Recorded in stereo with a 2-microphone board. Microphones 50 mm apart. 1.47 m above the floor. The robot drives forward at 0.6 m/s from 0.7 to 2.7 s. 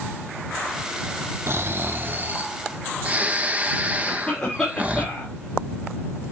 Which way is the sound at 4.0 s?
15° left (ahead or behind).